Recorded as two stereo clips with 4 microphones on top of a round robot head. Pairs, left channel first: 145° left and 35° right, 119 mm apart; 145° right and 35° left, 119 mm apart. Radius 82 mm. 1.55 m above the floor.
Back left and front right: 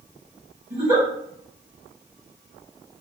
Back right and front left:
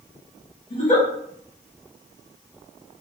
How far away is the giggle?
About 1.9 m.